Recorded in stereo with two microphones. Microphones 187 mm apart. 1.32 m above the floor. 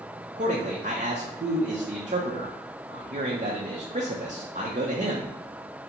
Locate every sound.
0.4 s a man speaking: 45° right (ahead or behind), 0.7 m